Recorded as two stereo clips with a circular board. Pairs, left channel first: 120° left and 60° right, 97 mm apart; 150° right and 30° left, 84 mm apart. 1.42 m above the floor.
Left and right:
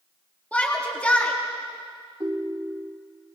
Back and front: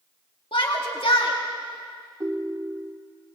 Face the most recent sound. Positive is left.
turn(degrees=-15)